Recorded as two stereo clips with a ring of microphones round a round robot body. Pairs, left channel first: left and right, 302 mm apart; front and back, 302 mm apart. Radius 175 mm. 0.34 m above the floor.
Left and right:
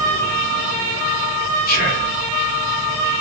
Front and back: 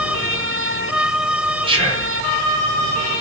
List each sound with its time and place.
1.7 s whispering: 120° left, 1.1 m